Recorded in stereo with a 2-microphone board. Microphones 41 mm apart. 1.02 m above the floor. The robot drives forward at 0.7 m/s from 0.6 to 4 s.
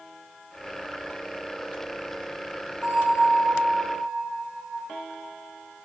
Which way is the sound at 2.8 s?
20° right (ahead or behind).